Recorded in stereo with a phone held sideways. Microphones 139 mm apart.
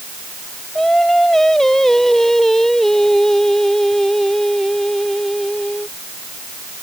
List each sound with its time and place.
0.8 s singing: 5° left (ahead or behind)